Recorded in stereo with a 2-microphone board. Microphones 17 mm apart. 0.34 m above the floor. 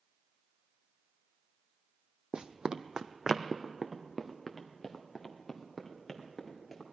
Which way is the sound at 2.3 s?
60° right (ahead or behind).